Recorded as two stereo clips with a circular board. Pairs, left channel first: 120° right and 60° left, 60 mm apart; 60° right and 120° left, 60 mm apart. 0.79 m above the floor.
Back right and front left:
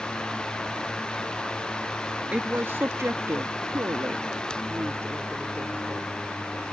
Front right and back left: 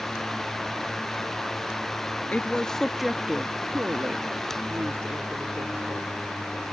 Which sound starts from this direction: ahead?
A woman speaking, at 2.3 s.